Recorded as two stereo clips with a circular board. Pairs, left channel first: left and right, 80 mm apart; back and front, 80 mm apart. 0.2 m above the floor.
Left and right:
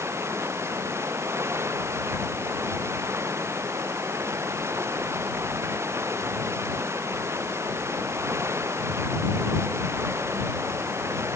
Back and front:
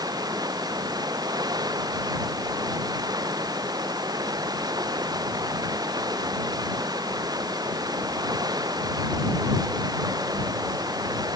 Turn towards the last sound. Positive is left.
turn(degrees=-35)